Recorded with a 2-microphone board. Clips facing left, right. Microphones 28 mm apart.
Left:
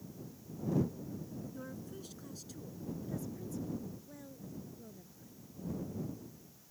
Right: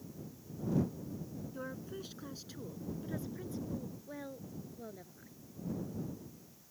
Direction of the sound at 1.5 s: 25° right (ahead or behind).